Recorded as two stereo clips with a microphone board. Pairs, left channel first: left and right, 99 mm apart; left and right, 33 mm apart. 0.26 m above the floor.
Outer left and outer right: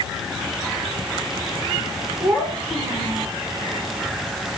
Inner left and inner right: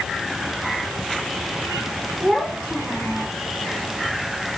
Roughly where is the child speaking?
Centre.